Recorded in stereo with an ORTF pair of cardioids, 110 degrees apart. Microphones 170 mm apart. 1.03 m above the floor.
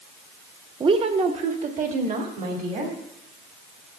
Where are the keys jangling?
I don't hear keys jangling.